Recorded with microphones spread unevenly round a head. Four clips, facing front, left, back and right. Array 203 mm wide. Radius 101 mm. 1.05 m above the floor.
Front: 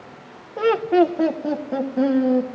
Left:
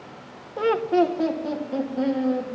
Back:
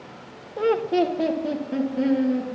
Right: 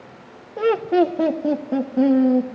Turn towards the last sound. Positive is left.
turn(degrees=-80)